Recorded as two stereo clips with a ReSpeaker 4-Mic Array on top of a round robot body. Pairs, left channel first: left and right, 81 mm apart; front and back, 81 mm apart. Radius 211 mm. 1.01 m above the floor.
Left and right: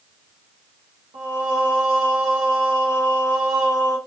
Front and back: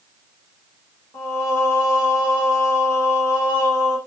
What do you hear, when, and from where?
1.1 s singing: 55° right, 1.5 m